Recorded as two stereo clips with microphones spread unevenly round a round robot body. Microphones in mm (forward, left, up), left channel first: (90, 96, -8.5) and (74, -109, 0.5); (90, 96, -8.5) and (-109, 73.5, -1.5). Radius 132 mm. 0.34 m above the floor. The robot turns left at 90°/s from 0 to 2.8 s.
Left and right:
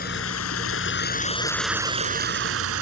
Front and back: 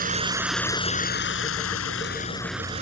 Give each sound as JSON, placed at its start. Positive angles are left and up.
{"t": 0.0, "sound": "running water", "azimuth_deg": 145}